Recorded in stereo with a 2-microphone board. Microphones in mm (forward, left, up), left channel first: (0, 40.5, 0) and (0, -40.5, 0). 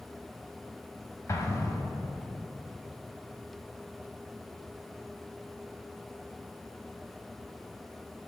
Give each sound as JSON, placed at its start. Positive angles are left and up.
{"t": 1.3, "sound": "an explosion", "side_deg": 40, "distance_m": 0.8}